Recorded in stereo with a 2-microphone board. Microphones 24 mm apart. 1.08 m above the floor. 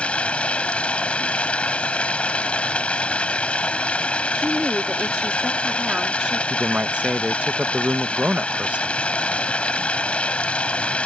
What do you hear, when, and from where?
0.0 s running water: 65° left (ahead or behind)
4.3 s a woman speaking: 35° right (ahead or behind)
6.5 s a man speaking: 70° right (ahead or behind)